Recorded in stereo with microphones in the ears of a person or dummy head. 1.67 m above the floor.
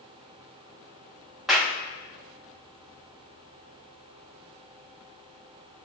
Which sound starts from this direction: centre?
A clap, at 1.5 s.